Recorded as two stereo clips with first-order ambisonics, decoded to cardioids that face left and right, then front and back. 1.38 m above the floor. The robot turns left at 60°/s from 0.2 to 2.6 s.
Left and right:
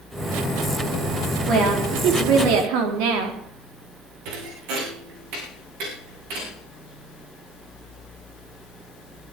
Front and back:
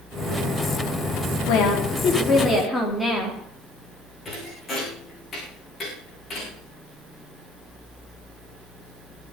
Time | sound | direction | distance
1.5 | a woman speaking | 20° right | 4 m
4.2 | a thud | 70° right | 7.5 m